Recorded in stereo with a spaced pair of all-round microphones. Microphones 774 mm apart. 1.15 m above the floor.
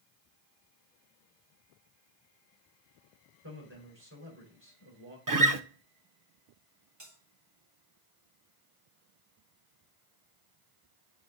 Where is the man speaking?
15° right (ahead or behind), 4.5 m.